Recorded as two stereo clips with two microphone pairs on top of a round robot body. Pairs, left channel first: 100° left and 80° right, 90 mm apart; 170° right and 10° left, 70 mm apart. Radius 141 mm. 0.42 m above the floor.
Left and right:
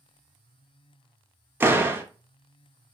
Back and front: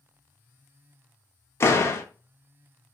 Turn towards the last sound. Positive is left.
turn(degrees=-135)